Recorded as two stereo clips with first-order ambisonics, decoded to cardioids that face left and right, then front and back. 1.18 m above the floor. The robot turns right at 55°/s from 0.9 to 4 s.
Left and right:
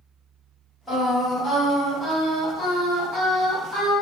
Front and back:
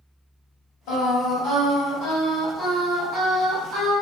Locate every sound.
0.9 s singing: 10° right, 1.7 m; by 3.9 s 155° left, 1.7 m